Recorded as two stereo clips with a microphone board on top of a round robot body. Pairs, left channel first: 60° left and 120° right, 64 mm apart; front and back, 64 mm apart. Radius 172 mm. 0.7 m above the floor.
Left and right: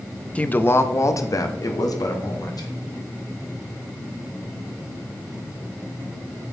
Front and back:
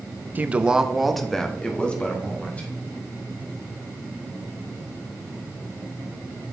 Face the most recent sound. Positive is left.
turn(degrees=70)